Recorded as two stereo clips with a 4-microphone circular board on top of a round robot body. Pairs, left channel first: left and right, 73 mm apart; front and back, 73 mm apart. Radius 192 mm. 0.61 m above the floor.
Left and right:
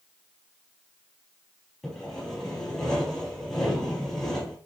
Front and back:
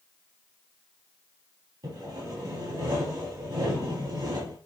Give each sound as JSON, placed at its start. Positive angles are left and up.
{"t": 1.8, "sound": "sawing", "azimuth_deg": 170, "distance_m": 4.5}